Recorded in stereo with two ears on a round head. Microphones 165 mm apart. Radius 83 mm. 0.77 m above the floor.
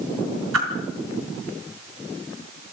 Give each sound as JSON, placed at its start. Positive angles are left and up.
{"t": 0.5, "sound": "a whoosh", "side_deg": -90, "distance_m": 3.0}